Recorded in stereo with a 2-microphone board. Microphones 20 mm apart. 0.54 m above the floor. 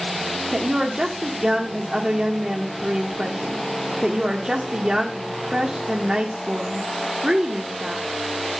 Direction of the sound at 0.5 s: 35° right (ahead or behind).